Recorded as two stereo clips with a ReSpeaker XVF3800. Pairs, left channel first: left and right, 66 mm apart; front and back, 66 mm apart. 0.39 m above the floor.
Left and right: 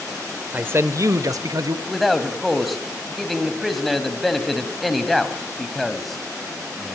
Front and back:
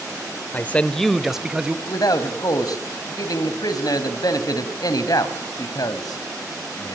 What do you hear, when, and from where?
0.5 s a man speaking: 40° right, 1.0 m; by 1.8 s 105° right, 2 m
1.9 s a man speaking: straight ahead, 3 m